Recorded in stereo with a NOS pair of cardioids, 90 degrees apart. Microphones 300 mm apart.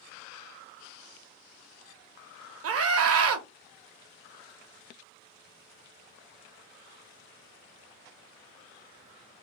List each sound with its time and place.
2.6 s a scream: 50° right, 0.8 m